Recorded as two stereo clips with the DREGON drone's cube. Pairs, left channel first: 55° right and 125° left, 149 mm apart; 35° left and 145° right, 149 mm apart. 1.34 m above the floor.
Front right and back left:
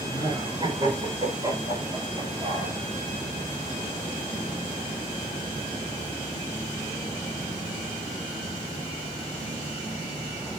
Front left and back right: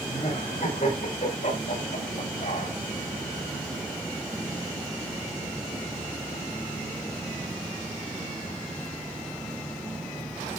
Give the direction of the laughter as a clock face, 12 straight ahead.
10 o'clock.